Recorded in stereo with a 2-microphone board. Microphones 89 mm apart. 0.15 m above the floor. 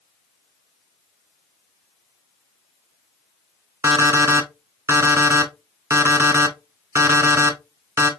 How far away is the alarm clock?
About 0.7 m.